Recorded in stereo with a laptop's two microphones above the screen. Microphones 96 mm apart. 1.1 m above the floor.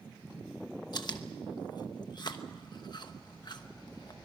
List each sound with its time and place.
0.9 s chewing: 50° left (ahead or behind), 1.0 m